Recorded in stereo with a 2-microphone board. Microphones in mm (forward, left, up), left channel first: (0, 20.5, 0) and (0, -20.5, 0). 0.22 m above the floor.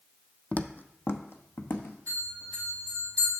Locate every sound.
0.5 s footsteps: 35° left (ahead or behind), 0.5 m; by 2.0 s 80° left, 1.3 m
2.1 s a bell: 45° left (ahead or behind), 5 m